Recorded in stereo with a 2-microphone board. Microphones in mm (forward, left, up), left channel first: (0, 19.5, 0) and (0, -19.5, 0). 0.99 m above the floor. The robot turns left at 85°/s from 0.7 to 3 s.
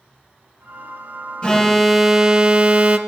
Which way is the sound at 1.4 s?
45° left.